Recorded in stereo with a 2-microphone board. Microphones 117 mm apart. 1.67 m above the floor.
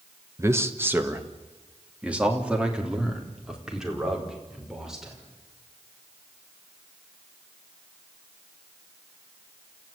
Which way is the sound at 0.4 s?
25° right (ahead or behind).